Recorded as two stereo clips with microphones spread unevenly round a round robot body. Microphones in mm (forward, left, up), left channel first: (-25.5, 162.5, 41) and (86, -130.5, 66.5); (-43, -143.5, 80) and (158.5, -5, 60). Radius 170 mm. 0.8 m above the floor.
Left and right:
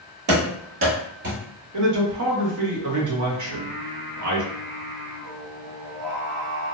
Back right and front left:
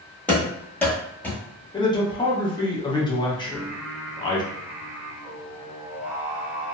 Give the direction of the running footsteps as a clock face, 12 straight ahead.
2 o'clock.